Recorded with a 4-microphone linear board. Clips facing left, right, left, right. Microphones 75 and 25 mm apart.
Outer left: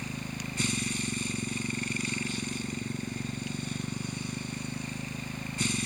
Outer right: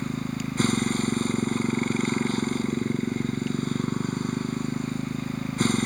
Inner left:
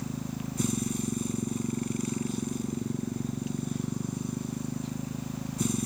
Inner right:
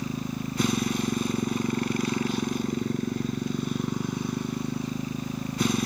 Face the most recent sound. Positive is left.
turn(degrees=-45)  # may be behind; listen again after turning